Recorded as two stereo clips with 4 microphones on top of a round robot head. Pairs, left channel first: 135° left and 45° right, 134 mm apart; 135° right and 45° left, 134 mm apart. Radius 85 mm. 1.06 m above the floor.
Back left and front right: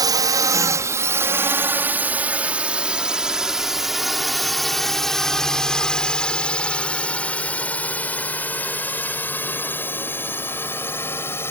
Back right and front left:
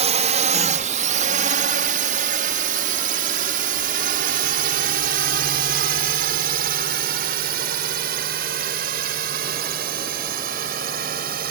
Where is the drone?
15° left; by 11.5 s 60° left.